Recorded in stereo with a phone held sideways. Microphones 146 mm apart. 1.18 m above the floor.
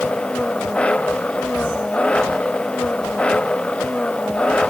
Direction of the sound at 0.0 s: 5° left (ahead or behind).